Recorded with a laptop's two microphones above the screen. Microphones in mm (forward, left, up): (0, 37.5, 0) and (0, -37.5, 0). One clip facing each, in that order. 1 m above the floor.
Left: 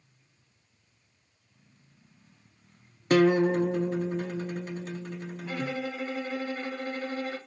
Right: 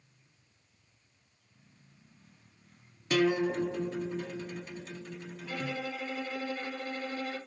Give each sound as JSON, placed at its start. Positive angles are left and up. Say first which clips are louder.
{"t": 3.1, "sound": "a guitar", "louder": "left 6 dB", "side_deg": 45, "distance_m": 0.5}
{"t": 5.4, "sound": "a violin", "louder": "left 3 dB", "side_deg": 40, "distance_m": 0.8}